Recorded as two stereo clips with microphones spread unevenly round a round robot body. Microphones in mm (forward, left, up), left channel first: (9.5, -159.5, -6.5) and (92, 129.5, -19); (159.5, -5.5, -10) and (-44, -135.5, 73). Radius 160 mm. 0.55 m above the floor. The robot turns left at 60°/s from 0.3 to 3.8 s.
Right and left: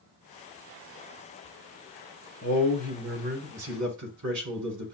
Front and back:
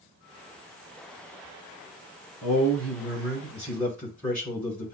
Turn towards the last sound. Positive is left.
turn(degrees=115)